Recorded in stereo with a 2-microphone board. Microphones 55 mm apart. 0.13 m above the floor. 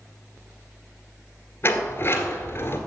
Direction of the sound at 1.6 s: 40° left (ahead or behind).